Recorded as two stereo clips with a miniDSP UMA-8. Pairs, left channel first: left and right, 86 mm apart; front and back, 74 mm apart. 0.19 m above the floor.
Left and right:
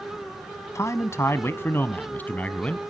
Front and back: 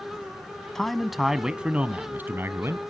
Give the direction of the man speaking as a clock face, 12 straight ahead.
9 o'clock.